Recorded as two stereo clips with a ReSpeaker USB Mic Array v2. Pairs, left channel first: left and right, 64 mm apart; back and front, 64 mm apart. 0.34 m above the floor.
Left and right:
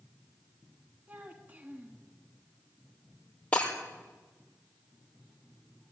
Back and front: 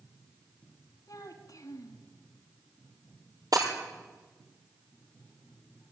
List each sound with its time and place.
1.1 s a child speaking: 155° right, 3 m
3.5 s breaking glass: 20° left, 4 m